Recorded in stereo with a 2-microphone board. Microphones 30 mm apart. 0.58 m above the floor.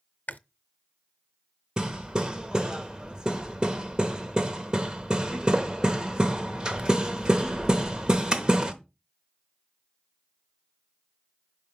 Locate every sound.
0.3 s chewing: 70° left (ahead or behind), 0.5 m
1.8 s hammering: 35° right (ahead or behind), 0.9 m